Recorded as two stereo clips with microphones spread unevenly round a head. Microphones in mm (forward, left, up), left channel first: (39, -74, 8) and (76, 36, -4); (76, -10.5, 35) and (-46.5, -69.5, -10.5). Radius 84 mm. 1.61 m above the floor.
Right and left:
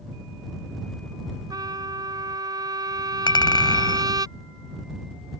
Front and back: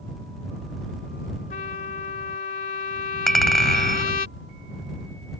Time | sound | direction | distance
1.5 | a trumpet | 15° left | ?
3.3 | a clink | 60° right | ?